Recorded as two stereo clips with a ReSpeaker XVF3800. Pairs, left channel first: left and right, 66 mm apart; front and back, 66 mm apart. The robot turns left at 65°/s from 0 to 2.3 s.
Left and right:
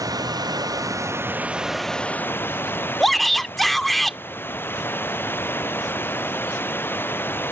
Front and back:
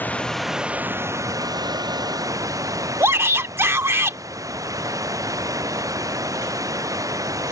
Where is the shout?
175° left.